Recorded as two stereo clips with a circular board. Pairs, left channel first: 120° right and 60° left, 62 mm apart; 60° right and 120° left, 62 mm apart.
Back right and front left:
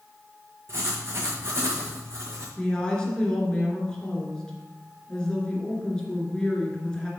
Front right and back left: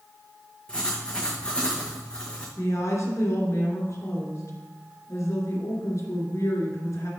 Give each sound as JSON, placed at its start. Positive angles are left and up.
{"t": 0.7, "sound": "writing", "azimuth_deg": 15, "distance_m": 2.5}
{"t": 2.6, "sound": "a woman speaking", "azimuth_deg": -45, "distance_m": 2.5}